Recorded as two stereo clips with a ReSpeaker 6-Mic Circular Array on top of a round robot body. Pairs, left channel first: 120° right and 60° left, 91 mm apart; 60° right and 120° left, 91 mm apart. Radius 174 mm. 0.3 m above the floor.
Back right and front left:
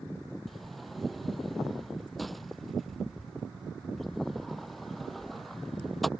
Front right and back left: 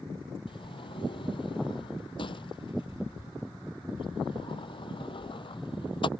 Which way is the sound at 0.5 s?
30° right.